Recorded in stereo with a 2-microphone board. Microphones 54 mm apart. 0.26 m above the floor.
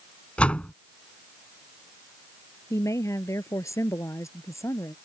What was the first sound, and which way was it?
A door slam, 20° left (ahead or behind).